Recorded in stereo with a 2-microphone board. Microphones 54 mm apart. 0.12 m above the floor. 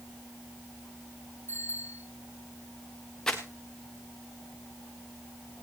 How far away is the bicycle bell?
About 9 m.